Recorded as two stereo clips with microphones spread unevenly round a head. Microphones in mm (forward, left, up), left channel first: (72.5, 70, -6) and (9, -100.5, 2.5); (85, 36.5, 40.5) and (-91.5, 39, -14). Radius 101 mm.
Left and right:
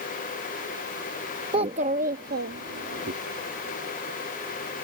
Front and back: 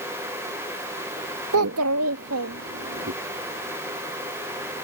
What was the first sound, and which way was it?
A child speaking, 175° right.